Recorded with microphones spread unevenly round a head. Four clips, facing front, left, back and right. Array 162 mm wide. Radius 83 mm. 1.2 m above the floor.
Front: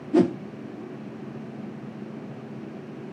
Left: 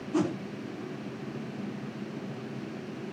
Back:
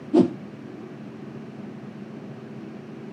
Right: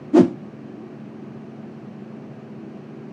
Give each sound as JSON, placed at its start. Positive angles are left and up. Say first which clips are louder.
{"t": 0.1, "sound": "a whoosh", "louder": "right 14 dB, back 2 dB", "azimuth_deg": -125, "distance_m": 0.6}